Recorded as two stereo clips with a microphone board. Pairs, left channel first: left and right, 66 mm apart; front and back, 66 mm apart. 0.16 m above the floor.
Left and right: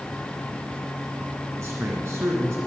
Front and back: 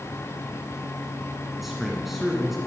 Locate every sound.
1.6 s a man speaking: 95° right, 1.7 m